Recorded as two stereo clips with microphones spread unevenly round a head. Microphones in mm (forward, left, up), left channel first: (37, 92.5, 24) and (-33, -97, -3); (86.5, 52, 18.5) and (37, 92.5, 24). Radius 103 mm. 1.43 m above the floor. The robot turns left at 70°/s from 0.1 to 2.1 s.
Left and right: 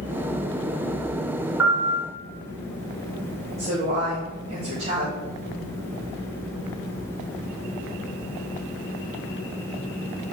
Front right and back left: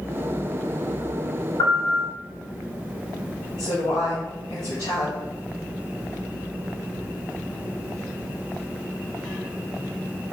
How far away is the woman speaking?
About 2.5 m.